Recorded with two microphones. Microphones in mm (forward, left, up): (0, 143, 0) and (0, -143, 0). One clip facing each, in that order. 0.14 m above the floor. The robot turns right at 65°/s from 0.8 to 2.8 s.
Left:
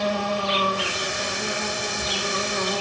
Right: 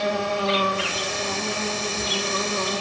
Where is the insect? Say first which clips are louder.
Right 1 dB; 155° right, 6 m; by 2.8 s 25° right, 6 m.